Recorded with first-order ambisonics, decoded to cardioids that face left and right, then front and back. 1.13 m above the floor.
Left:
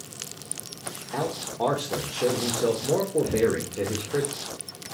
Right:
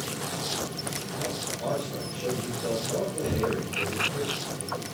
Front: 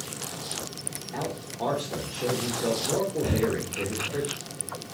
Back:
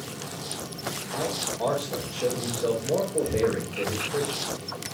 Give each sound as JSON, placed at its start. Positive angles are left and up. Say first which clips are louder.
{"t": 1.1, "sound": "a man speaking", "louder": "left 6 dB, back 4 dB", "azimuth_deg": 90, "distance_m": 3.0}
{"t": 3.2, "sound": "breathing", "louder": "left 4 dB, back 2 dB", "azimuth_deg": -10, "distance_m": 0.9}